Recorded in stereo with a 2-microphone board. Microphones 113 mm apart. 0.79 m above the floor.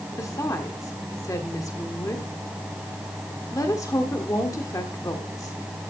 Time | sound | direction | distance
0.2 | a woman speaking | 30° left (ahead or behind) | 1.7 m